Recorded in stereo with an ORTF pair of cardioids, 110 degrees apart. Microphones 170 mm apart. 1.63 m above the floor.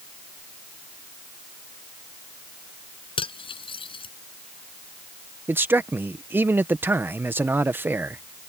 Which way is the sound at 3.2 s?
30° left.